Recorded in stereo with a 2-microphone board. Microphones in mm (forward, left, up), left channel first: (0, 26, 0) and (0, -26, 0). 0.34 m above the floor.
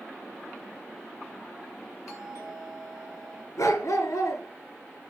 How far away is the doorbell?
About 5.5 m.